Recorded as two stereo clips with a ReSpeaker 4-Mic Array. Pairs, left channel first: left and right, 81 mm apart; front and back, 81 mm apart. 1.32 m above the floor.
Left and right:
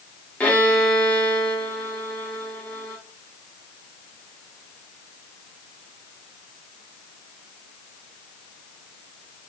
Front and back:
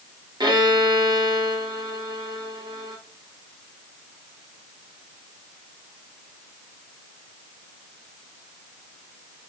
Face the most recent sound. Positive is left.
turn(degrees=160)